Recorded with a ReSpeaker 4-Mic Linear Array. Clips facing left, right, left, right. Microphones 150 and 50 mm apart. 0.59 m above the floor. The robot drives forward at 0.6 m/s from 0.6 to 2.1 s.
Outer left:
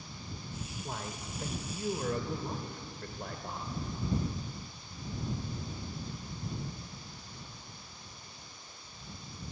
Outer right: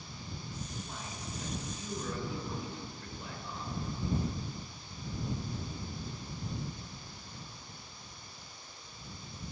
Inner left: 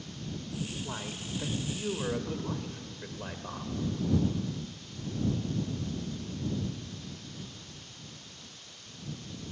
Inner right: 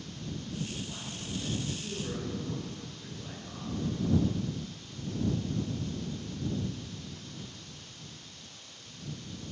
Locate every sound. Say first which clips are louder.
0.8 s a man speaking: outer left 3 dB, inner left 2 dB; 65° left (ahead or behind), 2 m; by 3.8 s 55° left (ahead or behind), 2.5 m